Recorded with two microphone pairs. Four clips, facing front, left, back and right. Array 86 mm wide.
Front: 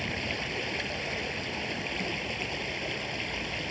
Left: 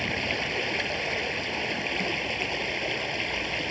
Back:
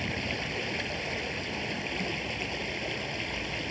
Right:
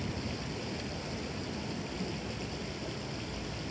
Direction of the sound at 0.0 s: 90° left.